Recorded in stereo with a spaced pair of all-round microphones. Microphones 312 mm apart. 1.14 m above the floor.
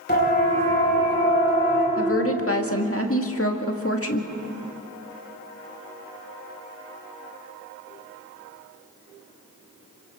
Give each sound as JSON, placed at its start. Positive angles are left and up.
{"t": 0.1, "sound": "a siren", "side_deg": 30, "distance_m": 7.0}
{"t": 2.0, "sound": "a woman speaking", "side_deg": 45, "distance_m": 1.8}